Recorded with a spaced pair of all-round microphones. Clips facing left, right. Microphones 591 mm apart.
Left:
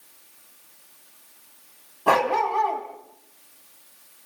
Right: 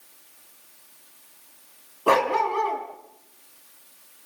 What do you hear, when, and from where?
2.1 s a dog barking: 20° left (ahead or behind), 4 m